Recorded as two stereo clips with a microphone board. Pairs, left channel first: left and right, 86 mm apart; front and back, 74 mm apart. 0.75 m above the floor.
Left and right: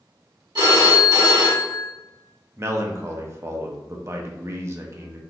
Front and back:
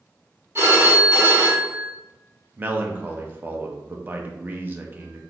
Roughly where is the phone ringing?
Behind right.